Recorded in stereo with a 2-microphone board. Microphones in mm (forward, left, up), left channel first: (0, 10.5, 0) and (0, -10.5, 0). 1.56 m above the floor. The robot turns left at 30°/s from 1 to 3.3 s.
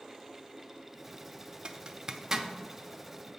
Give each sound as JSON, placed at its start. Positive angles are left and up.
{"t": 1.6, "sound": "a zipper", "side_deg": -40, "distance_m": 0.6}